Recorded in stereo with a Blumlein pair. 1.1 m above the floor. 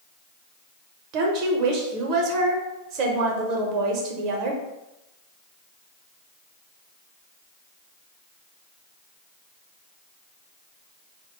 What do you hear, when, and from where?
1.1 s a woman speaking: 40° right, 0.7 m